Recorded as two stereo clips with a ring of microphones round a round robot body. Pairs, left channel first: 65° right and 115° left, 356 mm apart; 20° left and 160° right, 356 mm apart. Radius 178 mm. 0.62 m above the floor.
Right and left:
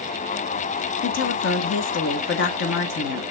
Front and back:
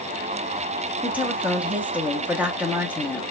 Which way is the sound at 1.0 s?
75° right.